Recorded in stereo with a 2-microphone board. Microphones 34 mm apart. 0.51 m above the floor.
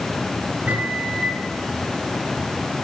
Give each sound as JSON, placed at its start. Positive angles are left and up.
{"t": 0.7, "sound": "a microwave", "side_deg": -60, "distance_m": 5.0}